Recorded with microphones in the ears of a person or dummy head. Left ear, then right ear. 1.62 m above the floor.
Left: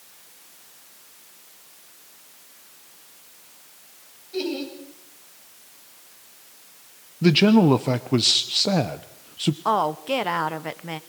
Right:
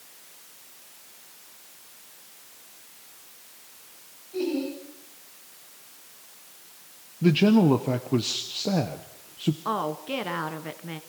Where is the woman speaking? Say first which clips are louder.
Left 8 dB; 20° left (ahead or behind), 0.6 m.